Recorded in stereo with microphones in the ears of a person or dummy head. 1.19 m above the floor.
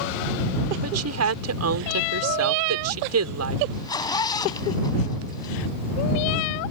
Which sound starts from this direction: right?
A woman speaking, at 0.8 s.